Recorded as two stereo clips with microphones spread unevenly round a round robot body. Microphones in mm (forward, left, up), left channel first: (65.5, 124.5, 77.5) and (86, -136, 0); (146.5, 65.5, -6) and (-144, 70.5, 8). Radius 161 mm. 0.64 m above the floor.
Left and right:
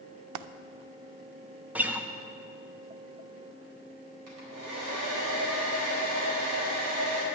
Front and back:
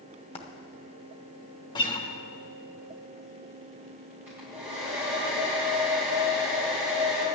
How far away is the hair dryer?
About 4 m.